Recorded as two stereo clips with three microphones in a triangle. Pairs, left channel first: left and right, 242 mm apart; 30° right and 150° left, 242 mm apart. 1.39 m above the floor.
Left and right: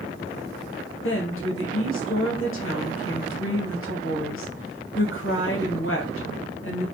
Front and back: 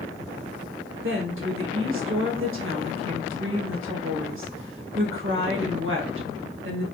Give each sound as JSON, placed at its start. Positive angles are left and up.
{"t": 1.0, "sound": "a woman speaking", "azimuth_deg": 120, "distance_m": 1.0}